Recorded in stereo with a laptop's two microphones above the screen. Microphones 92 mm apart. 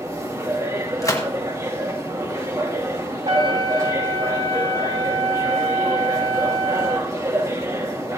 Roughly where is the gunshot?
Left.